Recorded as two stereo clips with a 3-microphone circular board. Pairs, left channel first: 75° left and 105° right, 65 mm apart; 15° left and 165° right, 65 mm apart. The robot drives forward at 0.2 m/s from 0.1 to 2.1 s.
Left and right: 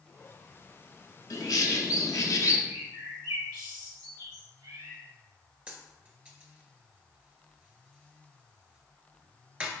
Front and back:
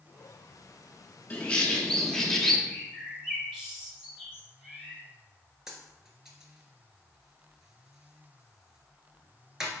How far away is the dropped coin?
About 0.9 m.